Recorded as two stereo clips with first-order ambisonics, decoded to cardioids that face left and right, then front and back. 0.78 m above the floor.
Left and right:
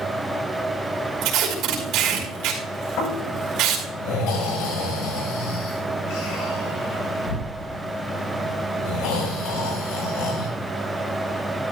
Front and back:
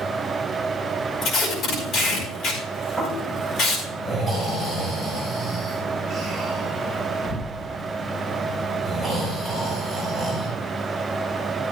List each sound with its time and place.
1.2 s tape being pulled: 50° right, 4.5 m
3.0 s snoring: 80° left, 6.5 m